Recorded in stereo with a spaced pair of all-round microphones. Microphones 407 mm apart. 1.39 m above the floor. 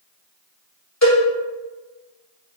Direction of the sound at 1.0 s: 40° left (ahead or behind).